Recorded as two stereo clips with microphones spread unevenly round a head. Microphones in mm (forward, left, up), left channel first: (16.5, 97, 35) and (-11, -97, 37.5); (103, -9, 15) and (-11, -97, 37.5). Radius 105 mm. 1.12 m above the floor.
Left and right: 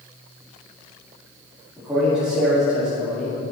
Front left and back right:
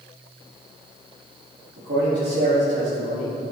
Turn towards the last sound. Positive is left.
turn(degrees=175)